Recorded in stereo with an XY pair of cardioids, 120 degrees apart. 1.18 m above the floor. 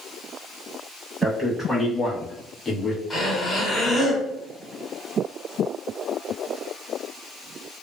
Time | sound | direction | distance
1.2 | a man speaking | 15° right | 1.4 m
3.1 | breathing | 10° left | 1.7 m